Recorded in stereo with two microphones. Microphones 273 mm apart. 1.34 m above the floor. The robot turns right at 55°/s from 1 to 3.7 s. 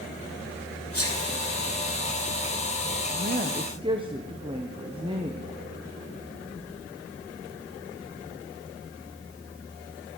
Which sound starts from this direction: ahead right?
A woman speaking, at 3.1 s.